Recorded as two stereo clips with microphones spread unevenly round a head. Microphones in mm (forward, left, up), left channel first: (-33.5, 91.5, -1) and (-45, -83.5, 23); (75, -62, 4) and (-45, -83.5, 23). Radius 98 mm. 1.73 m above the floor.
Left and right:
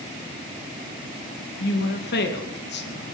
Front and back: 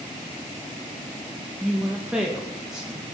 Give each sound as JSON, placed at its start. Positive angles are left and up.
{"t": 1.6, "sound": "a woman speaking", "azimuth_deg": 105, "distance_m": 2.5}